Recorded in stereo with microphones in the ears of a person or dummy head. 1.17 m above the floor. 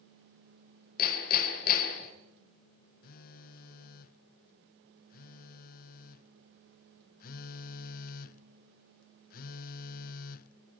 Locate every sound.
1.0 s hammering: 50° left (ahead or behind), 3 m
3.0 s a phone buzzing: 45° left (ahead or behind), 0.6 m